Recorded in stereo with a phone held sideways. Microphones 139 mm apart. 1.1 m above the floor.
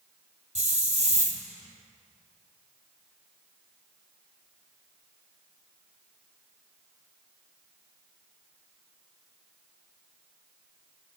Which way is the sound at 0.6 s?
55° right (ahead or behind).